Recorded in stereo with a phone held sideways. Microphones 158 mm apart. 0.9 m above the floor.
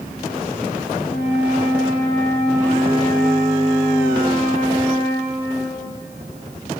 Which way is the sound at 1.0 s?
75° left (ahead or behind).